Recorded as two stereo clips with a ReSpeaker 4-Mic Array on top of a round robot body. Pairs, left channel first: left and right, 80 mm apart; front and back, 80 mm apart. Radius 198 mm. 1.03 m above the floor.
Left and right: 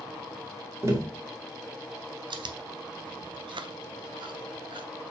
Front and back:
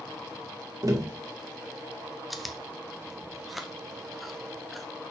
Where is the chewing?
90° right, 0.9 m.